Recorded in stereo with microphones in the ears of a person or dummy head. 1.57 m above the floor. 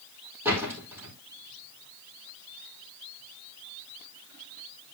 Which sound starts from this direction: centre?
A door slam, at 0.5 s.